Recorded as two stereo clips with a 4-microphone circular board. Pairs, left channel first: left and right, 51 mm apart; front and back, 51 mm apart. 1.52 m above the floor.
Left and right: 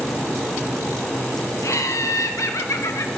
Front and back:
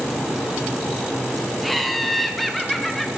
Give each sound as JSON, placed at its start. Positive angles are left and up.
{"t": 1.6, "sound": "laughter", "azimuth_deg": 90, "distance_m": 0.8}